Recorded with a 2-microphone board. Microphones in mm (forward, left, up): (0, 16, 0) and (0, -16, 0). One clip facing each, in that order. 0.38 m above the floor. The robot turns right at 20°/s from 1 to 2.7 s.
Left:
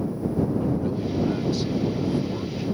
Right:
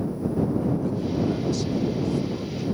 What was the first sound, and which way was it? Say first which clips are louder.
A man speaking: even; 25° left (ahead or behind).